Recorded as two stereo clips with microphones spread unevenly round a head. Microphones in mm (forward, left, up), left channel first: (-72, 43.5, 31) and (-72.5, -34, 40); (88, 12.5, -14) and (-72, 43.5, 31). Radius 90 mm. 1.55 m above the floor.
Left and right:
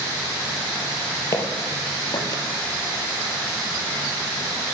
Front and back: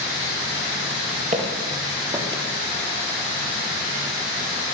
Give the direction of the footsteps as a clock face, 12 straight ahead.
7 o'clock.